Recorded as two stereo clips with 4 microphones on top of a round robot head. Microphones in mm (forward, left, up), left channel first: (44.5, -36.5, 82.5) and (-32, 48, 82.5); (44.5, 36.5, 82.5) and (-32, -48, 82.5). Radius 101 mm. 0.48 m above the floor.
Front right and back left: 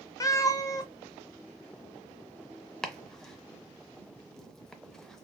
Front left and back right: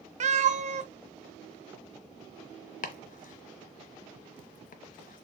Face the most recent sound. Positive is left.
turn(degrees=40)